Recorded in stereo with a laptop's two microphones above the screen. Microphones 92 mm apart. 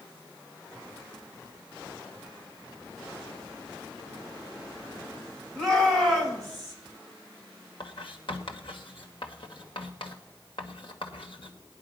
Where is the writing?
65° left (ahead or behind), 1.7 m.